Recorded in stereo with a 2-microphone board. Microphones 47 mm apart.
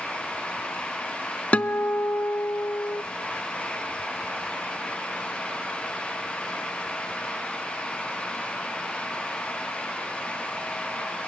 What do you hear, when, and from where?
1.5 s a guitar: 35° left (ahead or behind), 0.6 m